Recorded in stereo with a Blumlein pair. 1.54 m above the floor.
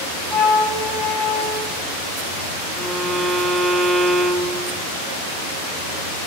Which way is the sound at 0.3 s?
20° left.